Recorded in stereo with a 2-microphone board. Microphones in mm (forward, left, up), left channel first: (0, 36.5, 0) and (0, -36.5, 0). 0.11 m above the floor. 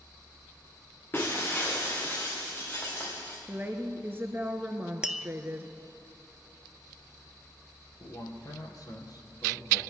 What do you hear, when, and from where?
1.1 s breaking glass: 30° left (ahead or behind), 4 m
3.5 s a woman speaking: 30° right (ahead or behind), 1.4 m
5.0 s tapping: 10° right (ahead or behind), 0.5 m
8.0 s a man speaking: 60° left (ahead or behind), 4 m